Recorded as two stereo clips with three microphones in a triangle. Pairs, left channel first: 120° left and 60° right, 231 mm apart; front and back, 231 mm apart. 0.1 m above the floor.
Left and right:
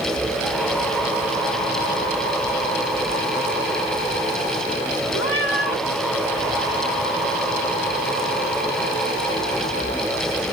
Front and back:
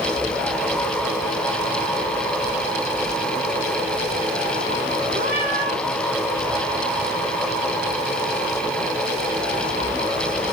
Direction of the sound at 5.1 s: 135° left.